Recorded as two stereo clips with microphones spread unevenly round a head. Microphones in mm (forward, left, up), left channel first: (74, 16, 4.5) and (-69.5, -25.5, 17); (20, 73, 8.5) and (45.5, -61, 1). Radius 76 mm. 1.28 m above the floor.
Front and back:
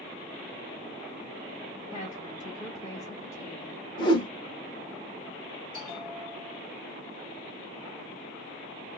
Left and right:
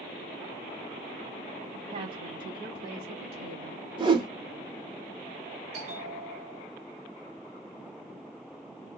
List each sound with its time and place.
1.9 s a woman speaking: 45° right, 2.5 m; by 3.8 s 55° right, 3.5 m
4.0 s a whoosh: 35° right, 1.1 m
5.7 s a bell: 50° right, 3.5 m